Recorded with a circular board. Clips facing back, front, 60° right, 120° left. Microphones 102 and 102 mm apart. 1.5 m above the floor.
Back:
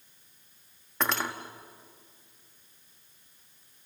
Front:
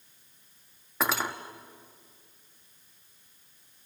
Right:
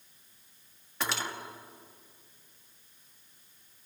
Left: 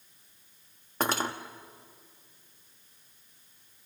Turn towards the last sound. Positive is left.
turn(degrees=85)